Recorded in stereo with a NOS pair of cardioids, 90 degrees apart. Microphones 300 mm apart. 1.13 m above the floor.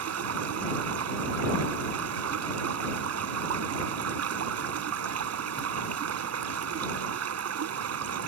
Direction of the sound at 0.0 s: 55° right.